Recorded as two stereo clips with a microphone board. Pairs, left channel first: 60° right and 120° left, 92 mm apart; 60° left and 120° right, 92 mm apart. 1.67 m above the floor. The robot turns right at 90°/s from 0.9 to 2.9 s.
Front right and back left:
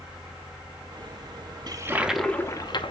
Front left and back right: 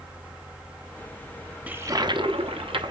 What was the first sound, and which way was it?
A toilet flushing, 165° left.